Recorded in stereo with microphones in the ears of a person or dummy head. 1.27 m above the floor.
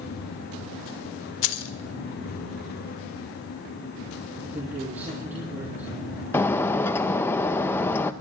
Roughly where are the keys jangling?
Left.